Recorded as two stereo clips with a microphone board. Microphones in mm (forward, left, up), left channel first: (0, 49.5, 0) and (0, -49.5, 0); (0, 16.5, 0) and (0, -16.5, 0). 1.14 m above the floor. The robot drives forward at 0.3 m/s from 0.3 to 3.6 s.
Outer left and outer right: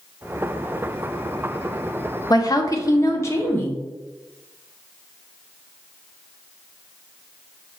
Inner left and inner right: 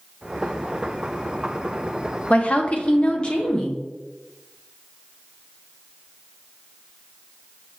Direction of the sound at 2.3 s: 40° left (ahead or behind).